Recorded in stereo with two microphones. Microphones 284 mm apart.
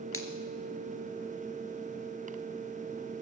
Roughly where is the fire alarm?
I don't hear a fire alarm.